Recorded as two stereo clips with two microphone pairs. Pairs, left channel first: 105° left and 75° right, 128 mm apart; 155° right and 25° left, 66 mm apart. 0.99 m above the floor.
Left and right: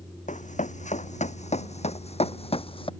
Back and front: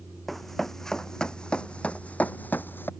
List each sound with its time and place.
0.3 s running footsteps: 120° left; by 2.9 s 150° left